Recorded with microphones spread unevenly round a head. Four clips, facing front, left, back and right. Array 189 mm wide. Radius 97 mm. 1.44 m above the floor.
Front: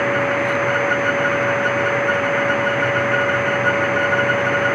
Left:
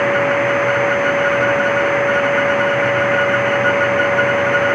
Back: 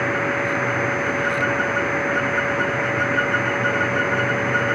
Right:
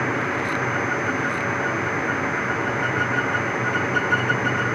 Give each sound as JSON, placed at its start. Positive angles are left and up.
{"t": 0.0, "sound": "a machine running", "azimuth_deg": 75}